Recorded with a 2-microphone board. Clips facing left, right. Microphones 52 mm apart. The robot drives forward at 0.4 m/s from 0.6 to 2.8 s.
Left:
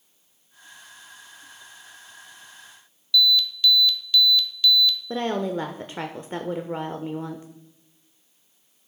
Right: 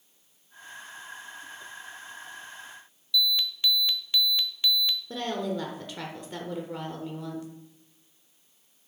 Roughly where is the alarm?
Right.